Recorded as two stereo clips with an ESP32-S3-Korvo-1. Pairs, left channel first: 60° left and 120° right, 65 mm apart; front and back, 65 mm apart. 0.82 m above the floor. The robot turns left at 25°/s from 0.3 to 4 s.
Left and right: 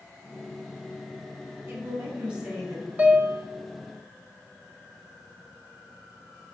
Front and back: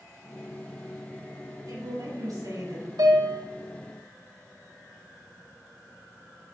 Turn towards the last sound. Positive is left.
turn(degrees=150)